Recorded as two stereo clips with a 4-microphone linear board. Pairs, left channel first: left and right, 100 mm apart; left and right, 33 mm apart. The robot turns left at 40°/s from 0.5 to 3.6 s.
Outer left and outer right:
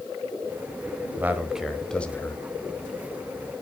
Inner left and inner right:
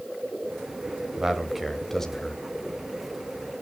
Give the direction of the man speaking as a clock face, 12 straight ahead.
5 o'clock.